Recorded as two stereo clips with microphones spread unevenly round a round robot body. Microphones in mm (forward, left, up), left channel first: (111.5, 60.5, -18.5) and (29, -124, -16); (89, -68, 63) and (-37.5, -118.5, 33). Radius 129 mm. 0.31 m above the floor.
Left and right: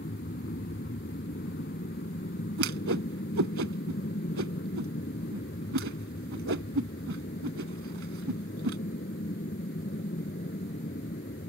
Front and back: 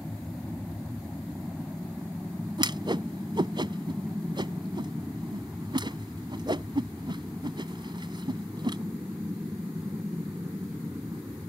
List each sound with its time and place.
0.0 s an aircraft: 110° left; by 11.5 s 120° left
2.6 s a whoosh: 100° right